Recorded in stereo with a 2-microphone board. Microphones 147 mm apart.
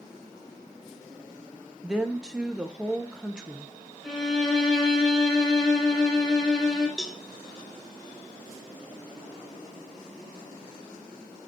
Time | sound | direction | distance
1.8 | a woman speaking | 5° right (ahead or behind) | 0.5 m
4.0 | a violin | centre (ahead or behind) | 2.5 m
7.0 | a cowbell | centre (ahead or behind) | 0.5 m